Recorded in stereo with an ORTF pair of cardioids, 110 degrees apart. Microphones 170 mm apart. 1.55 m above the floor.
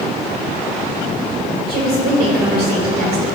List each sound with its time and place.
1.7 s a woman speaking: 65° right, 3 m